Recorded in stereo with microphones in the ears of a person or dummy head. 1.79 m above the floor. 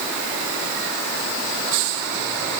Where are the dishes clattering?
No dishes clattering in this recording.